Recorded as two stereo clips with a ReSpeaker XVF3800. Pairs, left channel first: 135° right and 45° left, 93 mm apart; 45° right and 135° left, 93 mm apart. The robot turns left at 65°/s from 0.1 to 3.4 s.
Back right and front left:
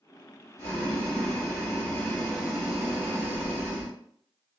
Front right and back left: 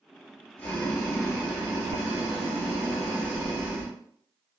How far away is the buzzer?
No buzzer in this recording.